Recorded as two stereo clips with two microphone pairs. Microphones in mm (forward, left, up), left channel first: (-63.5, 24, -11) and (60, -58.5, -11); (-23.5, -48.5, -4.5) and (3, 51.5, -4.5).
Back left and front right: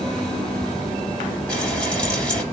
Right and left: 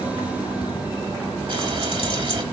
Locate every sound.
1.5 s frying: 65° left, 3 m